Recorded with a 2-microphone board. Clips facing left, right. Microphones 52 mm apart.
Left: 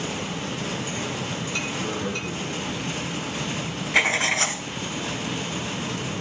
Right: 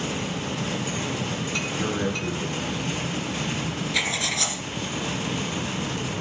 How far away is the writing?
About 0.6 m.